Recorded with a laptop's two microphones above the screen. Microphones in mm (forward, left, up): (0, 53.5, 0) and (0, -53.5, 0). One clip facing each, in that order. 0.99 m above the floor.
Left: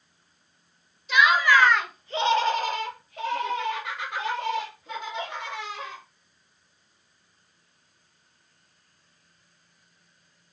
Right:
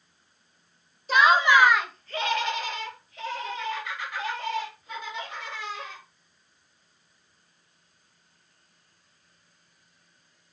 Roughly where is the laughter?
Right.